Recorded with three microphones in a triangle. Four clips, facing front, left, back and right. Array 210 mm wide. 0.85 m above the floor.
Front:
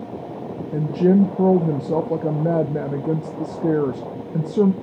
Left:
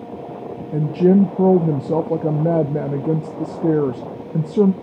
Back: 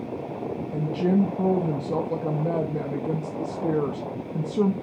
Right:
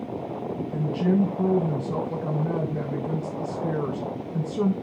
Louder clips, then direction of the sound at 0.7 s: Left 9 dB, front 7 dB; 75° left.